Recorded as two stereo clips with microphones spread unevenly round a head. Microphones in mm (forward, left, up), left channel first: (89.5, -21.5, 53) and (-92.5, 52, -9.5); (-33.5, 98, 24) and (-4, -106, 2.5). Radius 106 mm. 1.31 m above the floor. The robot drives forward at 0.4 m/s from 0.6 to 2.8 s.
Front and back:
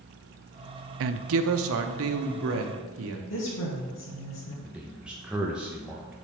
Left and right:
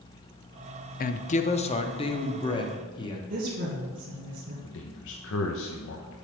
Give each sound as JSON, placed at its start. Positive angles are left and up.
{"t": 1.0, "sound": "a woman speaking", "azimuth_deg": 150, "distance_m": 0.5}
{"t": 3.3, "sound": "a woman speaking", "azimuth_deg": -30, "distance_m": 1.7}
{"t": 4.6, "sound": "a man speaking", "azimuth_deg": 70, "distance_m": 0.8}